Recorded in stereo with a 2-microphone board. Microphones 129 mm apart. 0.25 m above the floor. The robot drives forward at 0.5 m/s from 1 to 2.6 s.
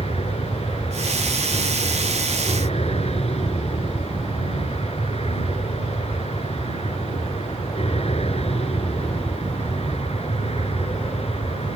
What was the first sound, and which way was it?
An aircraft, 50° left (ahead or behind).